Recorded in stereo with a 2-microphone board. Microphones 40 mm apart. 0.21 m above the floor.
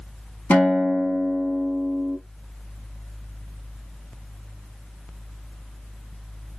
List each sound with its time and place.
0.5 s a guitar: 40° left (ahead or behind), 1.0 m